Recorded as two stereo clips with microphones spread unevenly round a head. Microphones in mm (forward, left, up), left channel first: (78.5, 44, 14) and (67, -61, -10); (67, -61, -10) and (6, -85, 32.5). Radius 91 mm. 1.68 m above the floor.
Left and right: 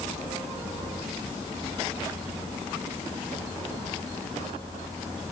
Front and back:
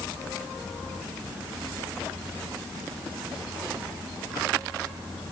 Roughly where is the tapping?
No tapping in this recording.